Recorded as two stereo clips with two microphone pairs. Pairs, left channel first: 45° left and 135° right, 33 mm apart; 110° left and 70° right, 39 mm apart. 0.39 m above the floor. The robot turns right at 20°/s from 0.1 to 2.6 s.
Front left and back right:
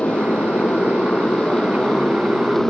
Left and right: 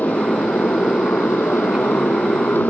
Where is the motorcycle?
75° left; by 2.7 s 125° left.